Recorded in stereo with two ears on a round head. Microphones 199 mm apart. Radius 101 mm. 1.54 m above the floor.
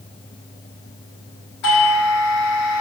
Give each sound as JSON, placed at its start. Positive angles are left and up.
{"t": 1.6, "sound": "a doorbell", "side_deg": 85, "distance_m": 5.5}